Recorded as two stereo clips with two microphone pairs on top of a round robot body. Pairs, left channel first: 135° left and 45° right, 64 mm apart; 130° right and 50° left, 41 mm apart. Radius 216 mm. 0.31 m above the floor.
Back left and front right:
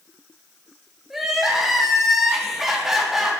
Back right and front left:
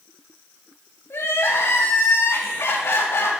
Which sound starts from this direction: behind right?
Crying, at 1.1 s.